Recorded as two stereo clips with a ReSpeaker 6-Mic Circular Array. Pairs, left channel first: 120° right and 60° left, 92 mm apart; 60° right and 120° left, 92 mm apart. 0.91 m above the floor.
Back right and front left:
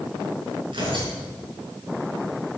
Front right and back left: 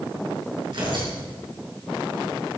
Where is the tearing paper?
85° left, 6 m.